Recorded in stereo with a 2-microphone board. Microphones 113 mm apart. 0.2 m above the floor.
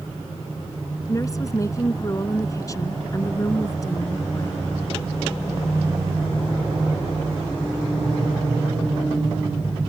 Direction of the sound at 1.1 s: 30° left (ahead or behind).